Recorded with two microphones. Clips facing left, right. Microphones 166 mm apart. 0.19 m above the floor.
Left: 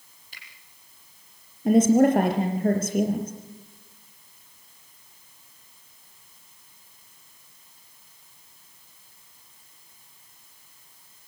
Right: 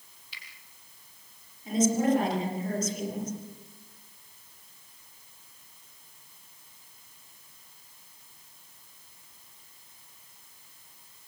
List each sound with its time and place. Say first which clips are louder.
0.3 s a finger snap: even; 45° left (ahead or behind), 6 m
1.6 s a woman speaking: left 8 dB; 60° left (ahead or behind), 4.5 m